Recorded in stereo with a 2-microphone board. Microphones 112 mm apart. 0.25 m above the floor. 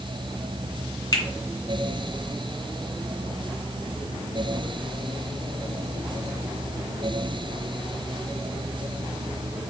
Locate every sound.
1.1 s a finger snap: 30° left (ahead or behind), 2.5 m